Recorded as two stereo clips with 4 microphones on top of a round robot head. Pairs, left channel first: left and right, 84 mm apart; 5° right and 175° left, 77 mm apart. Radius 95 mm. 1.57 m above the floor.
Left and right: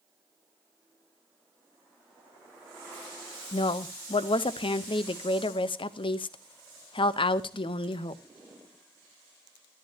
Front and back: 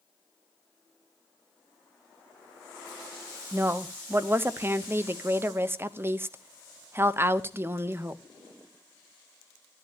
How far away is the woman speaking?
About 0.8 m.